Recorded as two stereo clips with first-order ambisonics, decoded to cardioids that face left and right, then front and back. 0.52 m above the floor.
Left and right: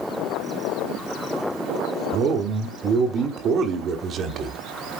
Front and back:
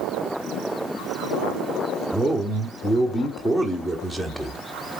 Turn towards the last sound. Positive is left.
turn(degrees=-80)